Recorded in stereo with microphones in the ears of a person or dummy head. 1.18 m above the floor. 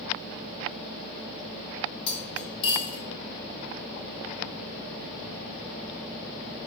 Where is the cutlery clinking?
30° left (ahead or behind), 1.3 m.